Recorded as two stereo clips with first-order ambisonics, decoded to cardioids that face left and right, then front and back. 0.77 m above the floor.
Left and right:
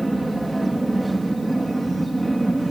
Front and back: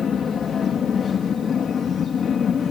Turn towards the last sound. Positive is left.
turn(degrees=-10)